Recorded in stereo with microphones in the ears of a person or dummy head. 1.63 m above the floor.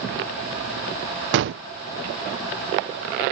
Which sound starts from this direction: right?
A gunshot, at 1.3 s.